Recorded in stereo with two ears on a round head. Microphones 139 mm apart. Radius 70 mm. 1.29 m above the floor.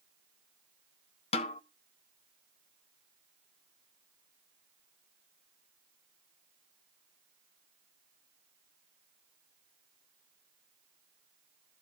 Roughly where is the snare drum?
Left.